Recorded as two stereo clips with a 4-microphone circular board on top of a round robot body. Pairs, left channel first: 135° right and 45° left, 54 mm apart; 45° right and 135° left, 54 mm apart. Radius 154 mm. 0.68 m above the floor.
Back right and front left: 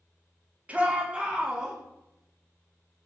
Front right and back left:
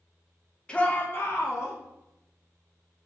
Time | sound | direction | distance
0.7 | a shout | 10° left | 1.1 m